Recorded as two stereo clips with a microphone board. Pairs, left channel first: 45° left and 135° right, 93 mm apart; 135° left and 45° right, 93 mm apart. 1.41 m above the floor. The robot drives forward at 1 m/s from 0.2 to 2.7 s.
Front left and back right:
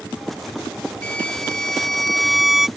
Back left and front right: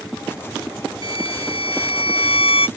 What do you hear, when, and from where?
1.0 s a violin: 120° left; by 2.7 s 140° left